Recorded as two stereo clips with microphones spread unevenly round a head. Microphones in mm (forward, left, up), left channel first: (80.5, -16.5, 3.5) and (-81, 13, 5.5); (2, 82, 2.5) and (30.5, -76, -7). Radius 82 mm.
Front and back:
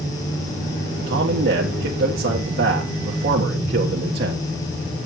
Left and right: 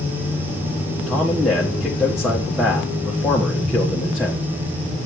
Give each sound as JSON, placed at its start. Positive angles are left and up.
{"t": 1.1, "sound": "a man speaking", "azimuth_deg": -165, "distance_m": 1.4}